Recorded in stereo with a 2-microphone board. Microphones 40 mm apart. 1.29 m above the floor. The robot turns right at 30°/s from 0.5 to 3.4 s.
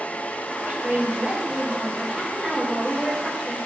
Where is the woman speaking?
50° right, 2.5 m; by 3.6 s 35° left, 2.5 m.